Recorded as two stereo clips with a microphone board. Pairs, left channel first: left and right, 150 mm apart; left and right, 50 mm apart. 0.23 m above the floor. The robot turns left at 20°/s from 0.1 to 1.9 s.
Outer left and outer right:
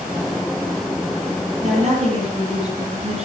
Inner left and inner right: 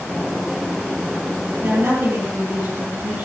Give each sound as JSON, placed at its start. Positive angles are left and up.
{"t": 1.6, "sound": "a woman speaking", "side_deg": -55, "distance_m": 7.0}